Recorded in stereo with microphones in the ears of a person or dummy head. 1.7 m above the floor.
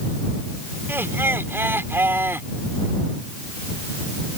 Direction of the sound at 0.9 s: 10° right (ahead or behind).